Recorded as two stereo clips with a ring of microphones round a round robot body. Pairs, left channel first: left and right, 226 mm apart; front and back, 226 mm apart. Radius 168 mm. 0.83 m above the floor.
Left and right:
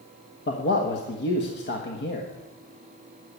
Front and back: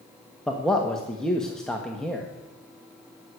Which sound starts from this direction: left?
A man speaking, at 0.5 s.